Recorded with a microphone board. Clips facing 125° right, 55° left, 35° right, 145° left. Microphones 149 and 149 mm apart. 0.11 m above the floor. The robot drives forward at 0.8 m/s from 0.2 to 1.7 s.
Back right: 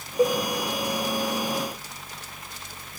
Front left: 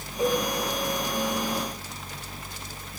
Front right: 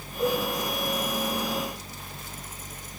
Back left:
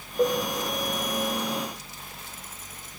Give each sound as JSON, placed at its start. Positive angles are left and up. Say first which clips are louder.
{"t": 0.2, "sound": "a cowbell", "louder": "back right 3 dB, back left 3 dB", "azimuth_deg": -175, "distance_m": 6.0}